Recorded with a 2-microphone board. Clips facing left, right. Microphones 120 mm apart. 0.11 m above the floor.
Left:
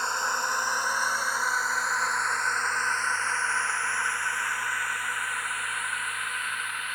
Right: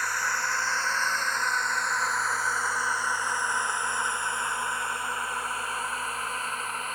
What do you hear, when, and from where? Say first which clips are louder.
0.0 s a drone: left 1 dB; 25° left (ahead or behind); by 7.0 s 35° right (ahead or behind)